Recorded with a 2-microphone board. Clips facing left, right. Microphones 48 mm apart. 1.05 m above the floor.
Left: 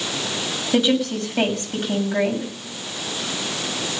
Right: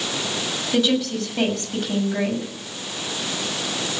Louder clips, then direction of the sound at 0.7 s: Left 2 dB; 20° left (ahead or behind).